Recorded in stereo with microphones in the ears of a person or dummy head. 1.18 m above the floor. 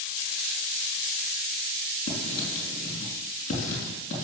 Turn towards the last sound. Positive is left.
turn(degrees=35)  # may be behind; listen again after turning